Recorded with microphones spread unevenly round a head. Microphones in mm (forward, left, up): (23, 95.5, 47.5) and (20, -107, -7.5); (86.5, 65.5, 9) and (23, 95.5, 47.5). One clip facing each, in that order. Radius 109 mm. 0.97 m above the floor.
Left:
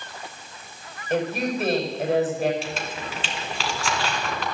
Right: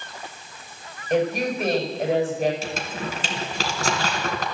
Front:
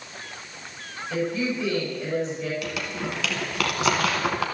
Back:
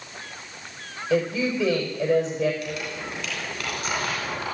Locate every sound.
1.1 s a woman speaking: straight behind, 5 m
2.6 s crumpling: 35° right, 3 m